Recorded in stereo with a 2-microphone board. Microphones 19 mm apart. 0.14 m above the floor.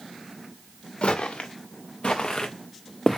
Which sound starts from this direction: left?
Footsteps, at 1.0 s.